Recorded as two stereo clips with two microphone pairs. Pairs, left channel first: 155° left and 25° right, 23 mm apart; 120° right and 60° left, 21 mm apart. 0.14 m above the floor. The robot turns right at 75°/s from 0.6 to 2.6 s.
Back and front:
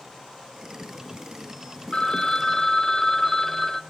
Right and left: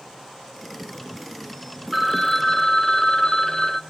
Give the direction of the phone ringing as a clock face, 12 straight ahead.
7 o'clock.